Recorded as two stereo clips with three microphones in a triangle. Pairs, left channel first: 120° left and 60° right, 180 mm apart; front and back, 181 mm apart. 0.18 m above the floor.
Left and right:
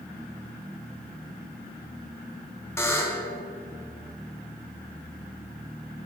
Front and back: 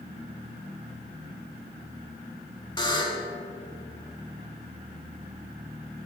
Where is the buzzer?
50° left, 0.6 m.